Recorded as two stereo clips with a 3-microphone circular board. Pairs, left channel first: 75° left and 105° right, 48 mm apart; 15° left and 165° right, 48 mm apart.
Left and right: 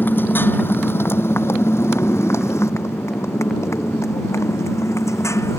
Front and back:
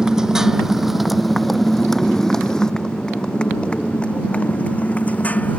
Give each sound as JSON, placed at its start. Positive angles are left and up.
{"t": 0.0, "sound": "a motorcycle", "azimuth_deg": 120}